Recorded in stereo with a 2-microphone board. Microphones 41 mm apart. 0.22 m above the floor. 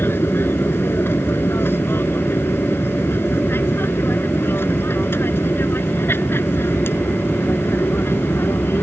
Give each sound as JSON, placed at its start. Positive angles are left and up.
{"t": 0.0, "sound": "an aircraft", "side_deg": 60}